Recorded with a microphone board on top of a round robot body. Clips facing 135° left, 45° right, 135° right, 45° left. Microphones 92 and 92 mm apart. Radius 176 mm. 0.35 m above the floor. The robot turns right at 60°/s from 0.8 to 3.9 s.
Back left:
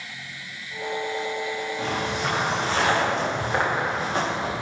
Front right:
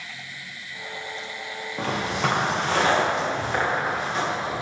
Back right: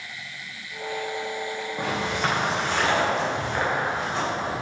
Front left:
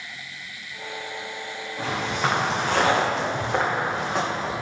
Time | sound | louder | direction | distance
1.8 | footsteps | front right 4 dB, front left 1 dB | 65° right | 2 m